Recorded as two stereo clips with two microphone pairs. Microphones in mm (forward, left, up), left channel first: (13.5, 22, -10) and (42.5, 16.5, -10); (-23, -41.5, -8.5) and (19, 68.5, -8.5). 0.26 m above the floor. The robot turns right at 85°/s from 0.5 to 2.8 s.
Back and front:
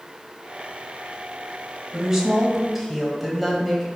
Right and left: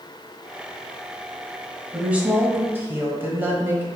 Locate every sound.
1.9 s a woman speaking: straight ahead, 1.0 m; by 3.9 s 75° left, 1.0 m